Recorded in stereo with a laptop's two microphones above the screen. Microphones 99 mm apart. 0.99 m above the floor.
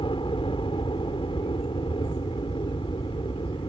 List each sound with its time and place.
0.0 s a helicopter: 60° left (ahead or behind)